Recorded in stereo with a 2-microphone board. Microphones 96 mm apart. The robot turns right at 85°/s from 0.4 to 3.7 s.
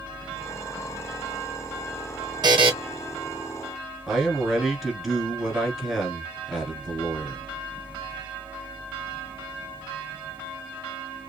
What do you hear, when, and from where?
2.4 s a buzzer: 45° right (ahead or behind), 0.7 m; by 2.7 s 70° right (ahead or behind), 0.7 m
4.1 s a man speaking: 5° right (ahead or behind), 1.3 m